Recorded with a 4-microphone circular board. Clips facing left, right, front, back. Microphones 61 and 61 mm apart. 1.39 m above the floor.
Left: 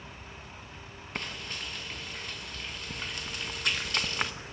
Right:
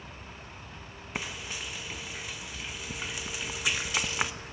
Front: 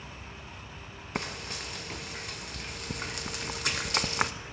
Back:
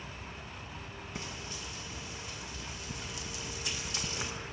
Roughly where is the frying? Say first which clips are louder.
Right 1 dB, front 8 dB; ahead.